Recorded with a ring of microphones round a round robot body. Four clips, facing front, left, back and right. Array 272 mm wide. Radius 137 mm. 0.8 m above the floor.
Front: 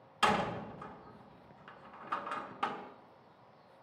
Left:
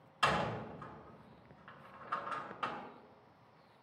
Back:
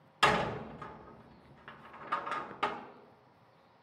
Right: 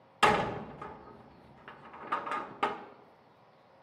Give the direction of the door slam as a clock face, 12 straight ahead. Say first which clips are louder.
Right 7 dB, back 2 dB; 3 o'clock.